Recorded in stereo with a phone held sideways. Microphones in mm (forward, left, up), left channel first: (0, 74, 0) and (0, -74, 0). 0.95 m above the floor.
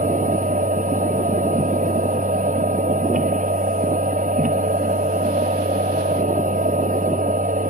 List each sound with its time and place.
0.0 s a machine running: 60° right (ahead or behind)